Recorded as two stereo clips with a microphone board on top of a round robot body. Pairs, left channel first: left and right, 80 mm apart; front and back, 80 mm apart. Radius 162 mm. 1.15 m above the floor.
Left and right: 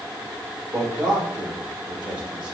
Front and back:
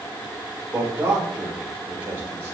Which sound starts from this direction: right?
A man speaking, at 0.7 s.